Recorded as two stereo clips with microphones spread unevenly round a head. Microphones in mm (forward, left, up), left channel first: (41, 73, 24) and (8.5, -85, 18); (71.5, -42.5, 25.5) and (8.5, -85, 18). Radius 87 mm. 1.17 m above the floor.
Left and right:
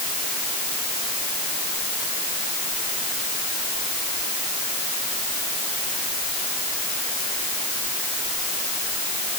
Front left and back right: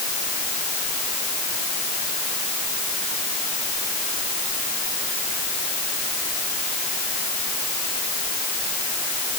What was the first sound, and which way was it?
Only background noise.